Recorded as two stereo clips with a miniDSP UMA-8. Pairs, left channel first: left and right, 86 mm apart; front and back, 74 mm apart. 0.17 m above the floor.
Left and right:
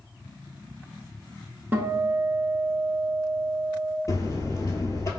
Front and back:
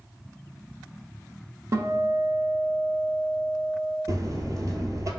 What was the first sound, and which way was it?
A guitar, 150° right.